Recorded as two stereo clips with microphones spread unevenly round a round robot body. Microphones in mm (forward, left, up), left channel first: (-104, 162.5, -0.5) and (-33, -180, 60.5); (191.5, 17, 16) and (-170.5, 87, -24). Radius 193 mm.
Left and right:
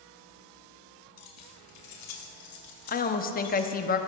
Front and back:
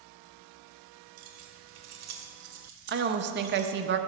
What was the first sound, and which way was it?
Keys jangling, 125° left.